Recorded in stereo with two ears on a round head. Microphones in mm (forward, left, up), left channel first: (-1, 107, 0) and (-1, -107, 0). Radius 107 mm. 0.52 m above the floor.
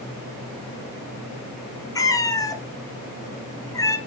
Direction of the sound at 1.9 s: 15° left (ahead or behind).